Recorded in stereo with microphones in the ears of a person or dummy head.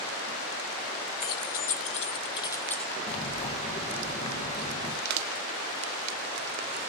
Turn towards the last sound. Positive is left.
turn(degrees=-60)  # may be behind; listen again after turning